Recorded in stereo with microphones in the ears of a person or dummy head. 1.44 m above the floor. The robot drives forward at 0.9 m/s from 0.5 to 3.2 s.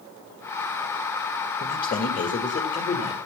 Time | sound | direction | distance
1.6 | a man speaking | 40° left (ahead or behind) | 2.5 m